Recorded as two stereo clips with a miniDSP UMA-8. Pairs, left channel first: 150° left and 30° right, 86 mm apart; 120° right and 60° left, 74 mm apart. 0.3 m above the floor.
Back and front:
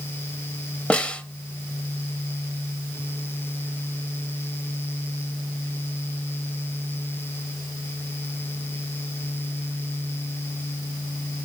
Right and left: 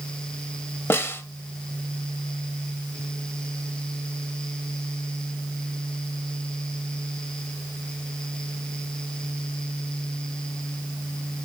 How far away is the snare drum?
About 0.8 m.